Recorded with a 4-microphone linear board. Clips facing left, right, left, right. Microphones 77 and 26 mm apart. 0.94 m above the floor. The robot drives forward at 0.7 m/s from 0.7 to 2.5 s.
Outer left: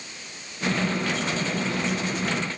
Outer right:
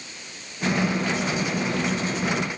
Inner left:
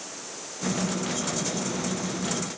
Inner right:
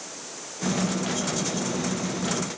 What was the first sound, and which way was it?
Only background noise.